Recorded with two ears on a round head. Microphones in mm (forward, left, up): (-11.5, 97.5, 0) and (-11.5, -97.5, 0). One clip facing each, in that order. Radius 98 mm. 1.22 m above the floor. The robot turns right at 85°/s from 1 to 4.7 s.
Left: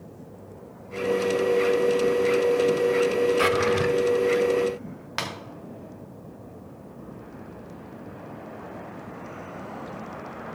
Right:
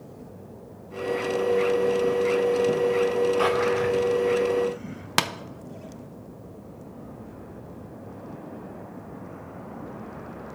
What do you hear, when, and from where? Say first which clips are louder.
3.4 s a drawer: even; 30° left, 0.5 m; by 3.9 s 75° left, 0.5 m
5.2 s tapping: right 6 dB; 65° right (ahead or behind), 0.7 m